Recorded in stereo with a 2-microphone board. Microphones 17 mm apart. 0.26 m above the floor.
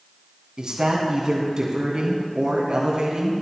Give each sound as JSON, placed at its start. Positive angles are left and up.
{"t": 0.6, "sound": "a woman speaking", "side_deg": -45, "distance_m": 2.5}